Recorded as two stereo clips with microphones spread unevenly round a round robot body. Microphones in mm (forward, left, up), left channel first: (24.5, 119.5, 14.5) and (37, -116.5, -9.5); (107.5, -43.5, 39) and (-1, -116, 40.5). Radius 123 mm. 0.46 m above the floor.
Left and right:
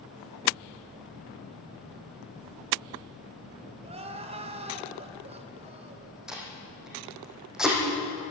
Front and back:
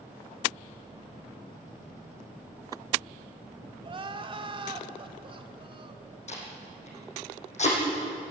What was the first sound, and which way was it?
Crying, 130° right.